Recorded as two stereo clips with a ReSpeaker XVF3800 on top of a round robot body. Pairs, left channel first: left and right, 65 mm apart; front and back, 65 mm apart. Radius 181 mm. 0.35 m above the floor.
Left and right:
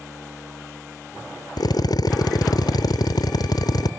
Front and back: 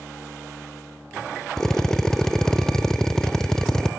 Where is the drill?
85° left, 0.7 m.